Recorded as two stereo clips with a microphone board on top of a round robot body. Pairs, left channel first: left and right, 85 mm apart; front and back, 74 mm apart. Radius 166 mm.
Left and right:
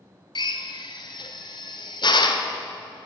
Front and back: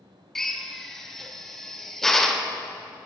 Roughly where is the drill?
Left.